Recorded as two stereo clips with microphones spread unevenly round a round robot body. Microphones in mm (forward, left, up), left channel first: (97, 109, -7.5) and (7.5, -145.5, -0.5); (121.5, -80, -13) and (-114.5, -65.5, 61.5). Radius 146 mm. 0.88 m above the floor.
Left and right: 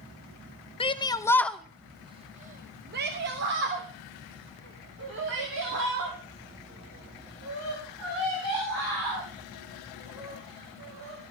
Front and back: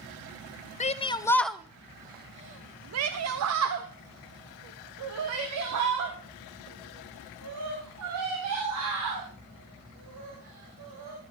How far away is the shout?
About 0.9 m.